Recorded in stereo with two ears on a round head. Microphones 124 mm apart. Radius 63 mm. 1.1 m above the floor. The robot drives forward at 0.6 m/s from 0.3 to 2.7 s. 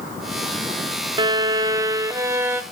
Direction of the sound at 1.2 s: 30° right (ahead or behind).